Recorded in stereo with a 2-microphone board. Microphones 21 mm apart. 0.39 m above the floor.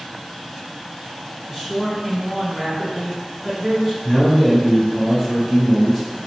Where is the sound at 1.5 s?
5° right (ahead or behind), 1.0 m.